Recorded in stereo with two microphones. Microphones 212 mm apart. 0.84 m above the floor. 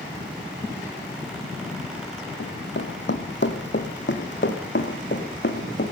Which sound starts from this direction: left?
Running footsteps, at 2.4 s.